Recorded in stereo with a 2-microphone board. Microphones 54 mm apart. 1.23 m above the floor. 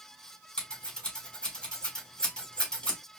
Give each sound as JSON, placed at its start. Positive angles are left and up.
{"t": 0.6, "sound": "scissors", "side_deg": 15, "distance_m": 4.0}